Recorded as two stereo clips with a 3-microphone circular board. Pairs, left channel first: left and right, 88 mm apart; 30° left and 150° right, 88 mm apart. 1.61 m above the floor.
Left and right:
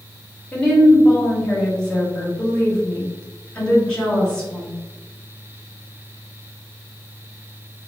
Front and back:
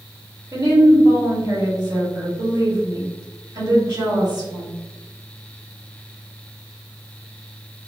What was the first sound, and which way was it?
A woman speaking, 170° left.